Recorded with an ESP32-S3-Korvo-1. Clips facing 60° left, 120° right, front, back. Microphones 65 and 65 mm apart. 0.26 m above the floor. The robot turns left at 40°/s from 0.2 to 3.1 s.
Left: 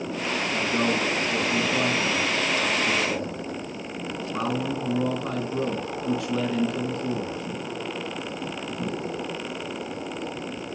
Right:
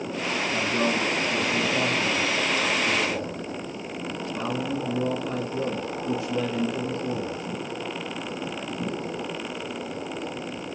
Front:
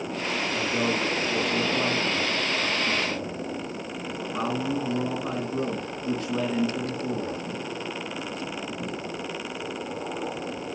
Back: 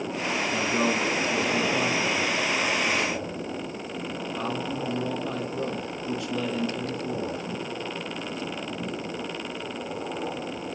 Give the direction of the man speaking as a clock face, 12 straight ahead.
7 o'clock.